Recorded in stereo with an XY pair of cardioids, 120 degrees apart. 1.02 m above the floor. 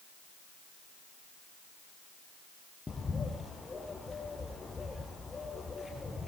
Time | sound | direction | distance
2.9 | a bird | 15° left | 4 m